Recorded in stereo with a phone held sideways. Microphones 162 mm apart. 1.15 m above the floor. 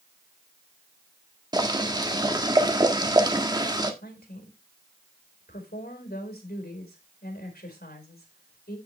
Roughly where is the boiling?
Right.